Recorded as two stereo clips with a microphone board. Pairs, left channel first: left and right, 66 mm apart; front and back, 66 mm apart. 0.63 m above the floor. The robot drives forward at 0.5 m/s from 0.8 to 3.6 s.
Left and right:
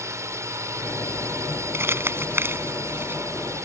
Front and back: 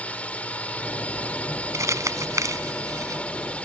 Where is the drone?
65° right.